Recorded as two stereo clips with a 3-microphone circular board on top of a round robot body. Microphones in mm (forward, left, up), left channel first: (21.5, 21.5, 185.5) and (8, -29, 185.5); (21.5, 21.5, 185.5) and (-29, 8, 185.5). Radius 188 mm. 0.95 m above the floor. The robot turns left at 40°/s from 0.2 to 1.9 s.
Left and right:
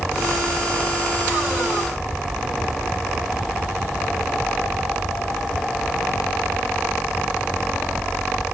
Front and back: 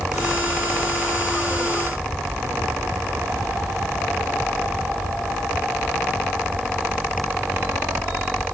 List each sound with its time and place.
Only background noise.